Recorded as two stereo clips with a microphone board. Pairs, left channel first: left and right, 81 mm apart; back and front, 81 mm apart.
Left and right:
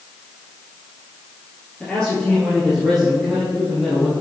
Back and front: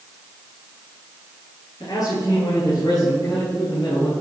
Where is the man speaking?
165° left, 2 m; by 4.1 s 175° right, 3 m.